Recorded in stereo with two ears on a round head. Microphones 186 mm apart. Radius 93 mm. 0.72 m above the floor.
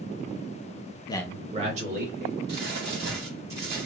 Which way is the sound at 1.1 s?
25° left (ahead or behind).